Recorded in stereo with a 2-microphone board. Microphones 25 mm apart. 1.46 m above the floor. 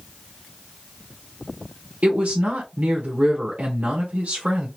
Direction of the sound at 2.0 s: 75° right (ahead or behind).